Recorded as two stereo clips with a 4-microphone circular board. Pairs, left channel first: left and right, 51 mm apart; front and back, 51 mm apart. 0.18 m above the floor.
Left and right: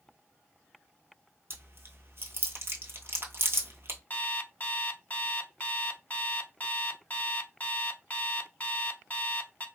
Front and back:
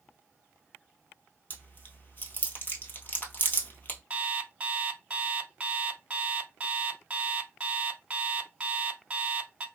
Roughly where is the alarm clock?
Behind left.